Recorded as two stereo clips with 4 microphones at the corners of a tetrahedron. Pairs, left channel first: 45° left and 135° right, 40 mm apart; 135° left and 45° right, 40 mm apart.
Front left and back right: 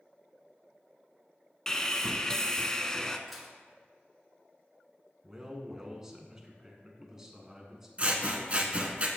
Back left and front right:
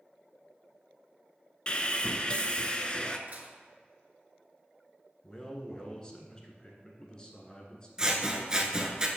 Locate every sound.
1.7 s sawing: 105° left, 0.5 m
3.3 s dishes clattering: 45° right, 1.1 m
5.2 s a man speaking: 165° left, 1.2 m
8.0 s scissors: 105° right, 0.8 m